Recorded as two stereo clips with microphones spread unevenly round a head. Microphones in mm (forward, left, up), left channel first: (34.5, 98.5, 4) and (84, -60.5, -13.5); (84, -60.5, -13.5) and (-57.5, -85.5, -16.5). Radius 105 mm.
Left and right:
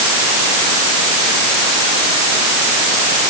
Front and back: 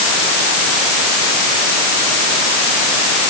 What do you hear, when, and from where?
Only background noise.